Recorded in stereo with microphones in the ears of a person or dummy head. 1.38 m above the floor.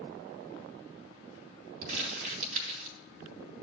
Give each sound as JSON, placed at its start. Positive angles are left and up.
{"t": 1.8, "sound": "crumpling", "side_deg": -50, "distance_m": 3.5}